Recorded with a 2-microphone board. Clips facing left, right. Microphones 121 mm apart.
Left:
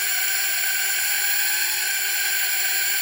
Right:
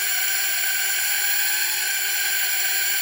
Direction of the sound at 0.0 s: Centre (ahead or behind).